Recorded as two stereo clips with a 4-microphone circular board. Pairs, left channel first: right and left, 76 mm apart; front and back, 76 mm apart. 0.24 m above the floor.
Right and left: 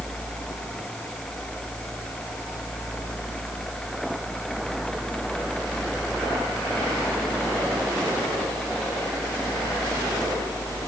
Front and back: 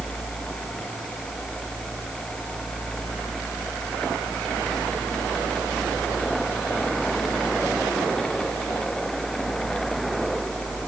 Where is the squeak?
No squeak in this recording.